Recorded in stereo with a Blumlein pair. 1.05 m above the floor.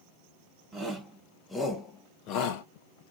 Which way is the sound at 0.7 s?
5° right.